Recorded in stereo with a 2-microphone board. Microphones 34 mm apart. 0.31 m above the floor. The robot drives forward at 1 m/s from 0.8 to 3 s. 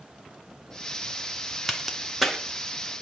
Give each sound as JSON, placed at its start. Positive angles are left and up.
{"t": 1.7, "sound": "a crack", "side_deg": 0, "distance_m": 2.5}